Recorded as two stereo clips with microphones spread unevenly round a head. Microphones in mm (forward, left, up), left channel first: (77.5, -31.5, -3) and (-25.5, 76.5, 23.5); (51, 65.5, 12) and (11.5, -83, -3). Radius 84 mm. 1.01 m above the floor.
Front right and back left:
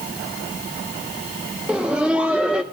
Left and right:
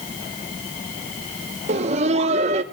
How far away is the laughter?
About 0.7 m.